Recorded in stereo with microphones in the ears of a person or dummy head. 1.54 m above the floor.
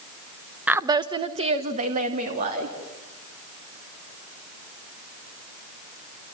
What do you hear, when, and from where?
0.7 s a woman speaking: 10° right (ahead or behind), 0.9 m; by 2.8 s 50° right (ahead or behind), 3 m